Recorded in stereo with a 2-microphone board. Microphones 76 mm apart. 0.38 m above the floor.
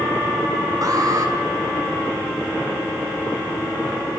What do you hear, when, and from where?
0.8 s an alarm: 45° right (ahead or behind), 5.5 m